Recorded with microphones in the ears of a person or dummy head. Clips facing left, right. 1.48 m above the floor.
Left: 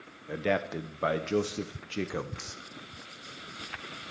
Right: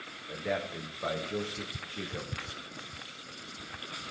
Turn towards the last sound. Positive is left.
turn(degrees=65)  # may be behind; listen again after turning